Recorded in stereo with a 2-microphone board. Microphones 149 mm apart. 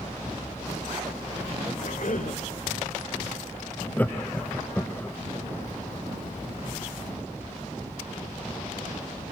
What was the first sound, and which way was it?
A cough, 70° left (ahead or behind).